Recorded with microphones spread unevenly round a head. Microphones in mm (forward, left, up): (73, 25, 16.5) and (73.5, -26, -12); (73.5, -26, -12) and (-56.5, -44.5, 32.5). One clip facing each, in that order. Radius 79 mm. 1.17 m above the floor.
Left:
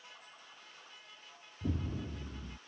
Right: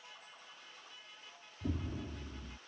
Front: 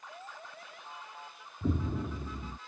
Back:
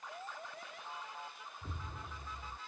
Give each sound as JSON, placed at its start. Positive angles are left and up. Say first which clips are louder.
{"t": 1.6, "sound": "an explosion", "louder": "left 2 dB, front 18 dB", "azimuth_deg": 50}